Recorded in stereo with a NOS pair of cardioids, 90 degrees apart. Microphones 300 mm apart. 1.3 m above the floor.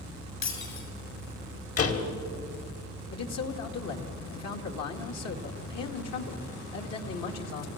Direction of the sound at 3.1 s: 60° left.